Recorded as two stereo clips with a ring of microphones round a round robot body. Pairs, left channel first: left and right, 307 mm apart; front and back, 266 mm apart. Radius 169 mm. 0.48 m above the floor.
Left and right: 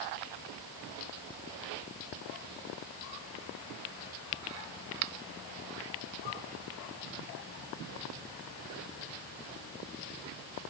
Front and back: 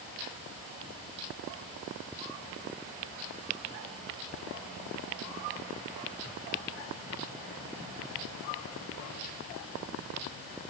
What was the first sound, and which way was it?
Only background noise.